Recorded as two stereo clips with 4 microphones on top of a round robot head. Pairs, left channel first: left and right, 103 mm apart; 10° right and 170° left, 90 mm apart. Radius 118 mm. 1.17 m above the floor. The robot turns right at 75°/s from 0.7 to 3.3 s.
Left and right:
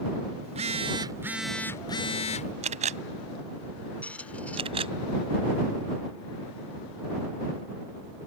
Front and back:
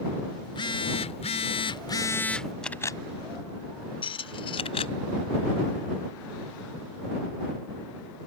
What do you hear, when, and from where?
0.4 s a phone buzzing: 60° right; by 2.5 s 80° left
2.6 s a camera shutter: 95° right; by 4.9 s 45° right
4.0 s a squeak: 10° left